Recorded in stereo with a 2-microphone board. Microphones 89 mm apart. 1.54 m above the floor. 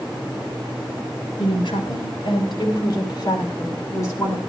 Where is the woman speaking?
65° left (ahead or behind), 7.5 m; by 4.4 s 30° left (ahead or behind), 6.5 m.